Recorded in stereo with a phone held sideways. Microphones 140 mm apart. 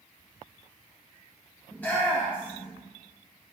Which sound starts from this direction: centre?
A shout, at 1.7 s.